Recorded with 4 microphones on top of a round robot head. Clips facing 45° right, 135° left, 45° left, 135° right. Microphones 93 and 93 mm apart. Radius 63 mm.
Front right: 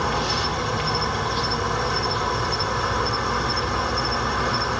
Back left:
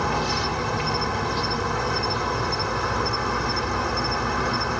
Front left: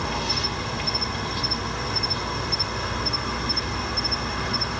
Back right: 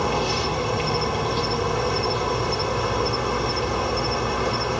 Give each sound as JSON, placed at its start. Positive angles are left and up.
{"t": 0.0, "sound": "an insect", "azimuth_deg": -135, "distance_m": 2.5}